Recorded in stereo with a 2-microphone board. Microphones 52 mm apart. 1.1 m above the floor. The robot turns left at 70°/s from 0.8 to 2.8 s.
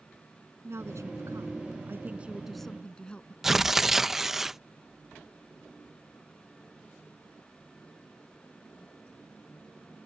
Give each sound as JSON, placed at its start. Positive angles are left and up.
{"t": 0.6, "sound": "a woman speaking", "azimuth_deg": -60}
{"t": 3.4, "sound": "tearing paper", "side_deg": -10}